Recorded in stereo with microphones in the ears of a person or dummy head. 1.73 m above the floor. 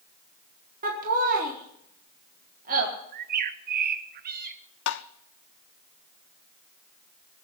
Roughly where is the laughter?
Right.